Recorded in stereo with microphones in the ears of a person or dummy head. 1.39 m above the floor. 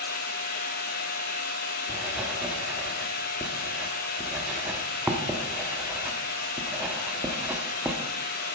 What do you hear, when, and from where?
0.0 s a machine running: 55° left (ahead or behind), 1.9 m
1.9 s writing: 10° right (ahead or behind), 1.2 m